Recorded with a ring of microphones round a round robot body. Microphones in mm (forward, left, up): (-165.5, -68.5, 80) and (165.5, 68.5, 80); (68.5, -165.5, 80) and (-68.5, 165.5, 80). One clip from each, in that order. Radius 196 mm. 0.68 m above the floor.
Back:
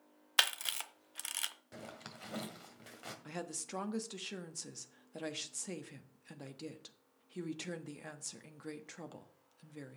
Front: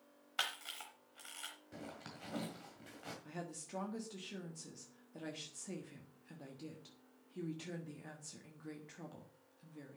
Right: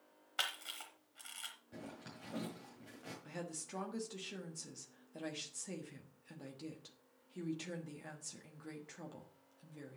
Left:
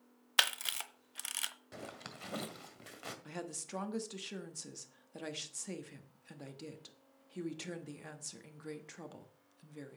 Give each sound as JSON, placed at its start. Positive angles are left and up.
{"t": 0.4, "sound": "a camera shutter", "azimuth_deg": 160, "distance_m": 0.8}
{"t": 1.7, "sound": "a zipper", "azimuth_deg": 135, "distance_m": 1.9}
{"t": 3.2, "sound": "a woman speaking", "azimuth_deg": 180, "distance_m": 1.4}